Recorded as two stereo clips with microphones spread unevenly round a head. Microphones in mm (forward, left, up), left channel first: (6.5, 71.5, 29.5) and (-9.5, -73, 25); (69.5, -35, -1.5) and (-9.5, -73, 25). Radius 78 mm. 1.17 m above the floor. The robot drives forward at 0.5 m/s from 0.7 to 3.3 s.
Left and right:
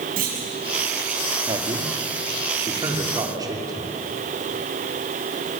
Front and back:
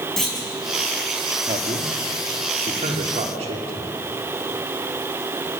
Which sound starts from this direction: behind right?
A man speaking, at 1.5 s.